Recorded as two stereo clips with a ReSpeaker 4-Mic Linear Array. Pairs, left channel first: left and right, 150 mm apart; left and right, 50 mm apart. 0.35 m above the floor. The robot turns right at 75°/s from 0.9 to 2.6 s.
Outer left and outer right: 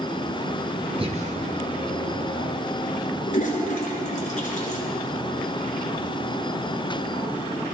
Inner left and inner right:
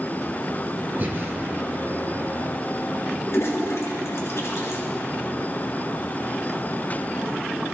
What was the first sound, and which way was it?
Breathing, 35° right (ahead or behind).